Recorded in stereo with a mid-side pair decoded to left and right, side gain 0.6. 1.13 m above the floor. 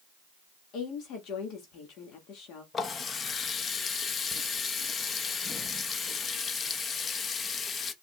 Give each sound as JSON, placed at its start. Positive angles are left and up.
{"t": 0.7, "sound": "a woman speaking", "azimuth_deg": 60, "distance_m": 1.9}
{"t": 2.7, "sound": "a running tap", "azimuth_deg": 35, "distance_m": 0.9}